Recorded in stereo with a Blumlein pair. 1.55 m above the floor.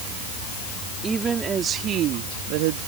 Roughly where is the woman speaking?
Ahead.